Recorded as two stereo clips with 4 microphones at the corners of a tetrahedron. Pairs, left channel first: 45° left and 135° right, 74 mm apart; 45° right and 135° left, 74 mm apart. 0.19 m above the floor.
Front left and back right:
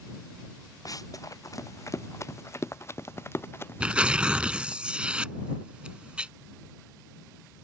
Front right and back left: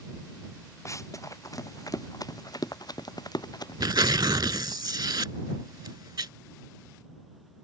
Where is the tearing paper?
150° left.